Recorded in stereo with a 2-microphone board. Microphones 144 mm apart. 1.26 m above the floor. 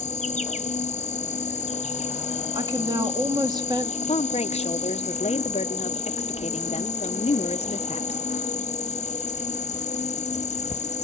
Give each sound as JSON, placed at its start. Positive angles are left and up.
{"t": 0.0, "sound": "an insect", "side_deg": 50, "distance_m": 1.1}
{"t": 2.5, "sound": "a woman speaking", "side_deg": -30, "distance_m": 2.0}
{"t": 4.0, "sound": "a woman speaking", "side_deg": 45, "distance_m": 0.9}